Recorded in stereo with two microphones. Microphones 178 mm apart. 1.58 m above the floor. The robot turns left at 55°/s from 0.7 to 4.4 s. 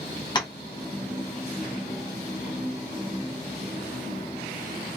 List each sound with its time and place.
0.3 s tapping: 25° left (ahead or behind), 0.7 m